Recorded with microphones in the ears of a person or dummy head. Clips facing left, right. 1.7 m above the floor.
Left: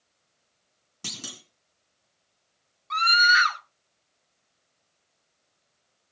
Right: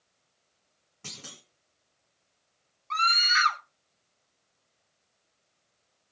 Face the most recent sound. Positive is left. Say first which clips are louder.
# left 5 dB
turn(degrees=20)  # may be behind; listen again after turning